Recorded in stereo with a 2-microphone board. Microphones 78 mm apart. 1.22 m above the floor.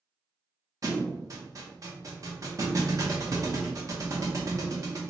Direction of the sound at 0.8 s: 45° right (ahead or behind).